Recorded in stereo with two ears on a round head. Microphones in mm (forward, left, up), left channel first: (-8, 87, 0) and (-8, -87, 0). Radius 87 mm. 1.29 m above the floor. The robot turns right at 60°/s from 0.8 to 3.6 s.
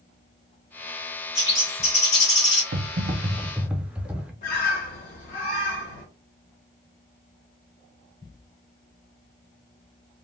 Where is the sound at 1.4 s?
20° left, 1.8 m; by 2.6 s 95° left, 1.8 m.